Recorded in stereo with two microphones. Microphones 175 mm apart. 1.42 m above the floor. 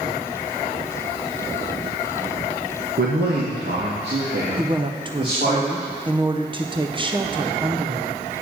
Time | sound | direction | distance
3.0 | a man speaking | 65° right (ahead or behind) | 1.7 m
4.6 | a woman speaking | 30° right (ahead or behind) | 1.0 m